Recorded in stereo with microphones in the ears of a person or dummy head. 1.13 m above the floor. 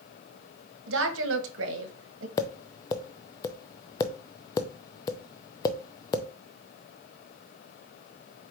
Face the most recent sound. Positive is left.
turn(degrees=20)  # may be behind; listen again after turning